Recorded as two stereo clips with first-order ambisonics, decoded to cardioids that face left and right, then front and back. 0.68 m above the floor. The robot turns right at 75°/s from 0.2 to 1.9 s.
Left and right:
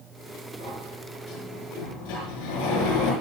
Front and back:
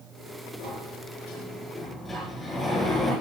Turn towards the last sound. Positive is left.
turn(degrees=75)